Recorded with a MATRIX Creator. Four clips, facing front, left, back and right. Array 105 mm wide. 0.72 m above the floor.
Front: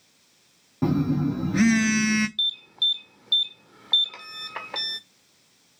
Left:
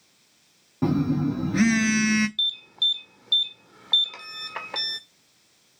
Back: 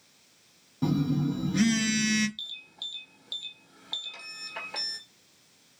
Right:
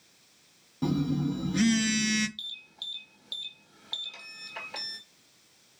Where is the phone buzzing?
50° left, 0.7 m.